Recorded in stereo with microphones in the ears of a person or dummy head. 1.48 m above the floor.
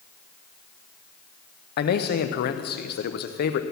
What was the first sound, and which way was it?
A man speaking, 60° left (ahead or behind).